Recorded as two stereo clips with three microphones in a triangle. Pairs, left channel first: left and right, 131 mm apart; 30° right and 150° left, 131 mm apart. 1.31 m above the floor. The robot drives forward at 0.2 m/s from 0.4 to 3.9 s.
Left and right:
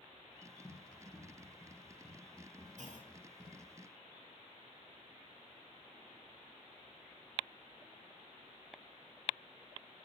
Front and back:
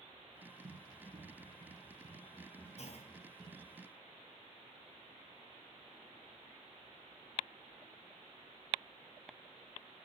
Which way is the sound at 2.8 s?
65° right.